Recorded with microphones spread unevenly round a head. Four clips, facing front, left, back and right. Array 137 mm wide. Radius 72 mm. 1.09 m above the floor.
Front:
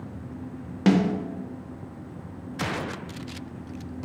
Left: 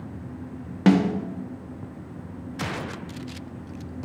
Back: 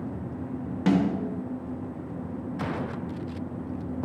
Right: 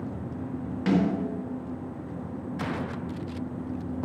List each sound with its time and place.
0.9 s a snare drum: 60° left, 1.5 m